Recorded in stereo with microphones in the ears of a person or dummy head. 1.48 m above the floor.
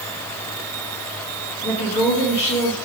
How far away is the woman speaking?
About 2.5 m.